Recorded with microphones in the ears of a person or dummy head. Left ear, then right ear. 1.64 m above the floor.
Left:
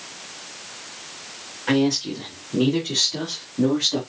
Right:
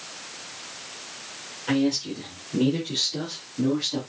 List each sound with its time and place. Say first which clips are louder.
1.7 s a man speaking: left 4 dB; 55° left (ahead or behind), 5.5 m; by 4.0 s 45° left (ahead or behind), 3.5 m